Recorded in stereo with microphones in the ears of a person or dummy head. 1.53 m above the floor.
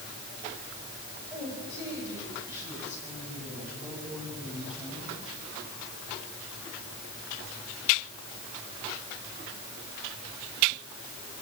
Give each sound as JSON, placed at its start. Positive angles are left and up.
{"t": 1.3, "sound": "a woman speaking", "side_deg": -20, "distance_m": 8.5}